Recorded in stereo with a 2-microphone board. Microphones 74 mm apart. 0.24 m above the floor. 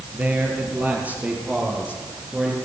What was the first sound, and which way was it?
A man speaking, 25° right (ahead or behind).